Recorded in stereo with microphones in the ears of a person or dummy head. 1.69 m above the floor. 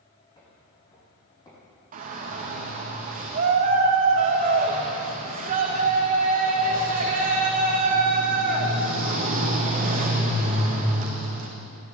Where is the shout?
45° right (ahead or behind), 2 m.